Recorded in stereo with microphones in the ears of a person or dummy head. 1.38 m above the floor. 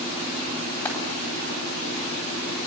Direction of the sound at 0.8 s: 10° left (ahead or behind).